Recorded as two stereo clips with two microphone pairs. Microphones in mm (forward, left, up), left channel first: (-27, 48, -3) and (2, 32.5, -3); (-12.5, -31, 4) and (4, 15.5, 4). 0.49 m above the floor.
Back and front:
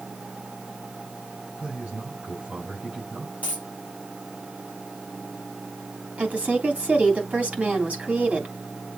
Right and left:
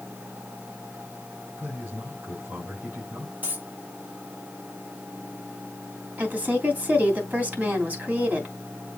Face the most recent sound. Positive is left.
turn(degrees=15)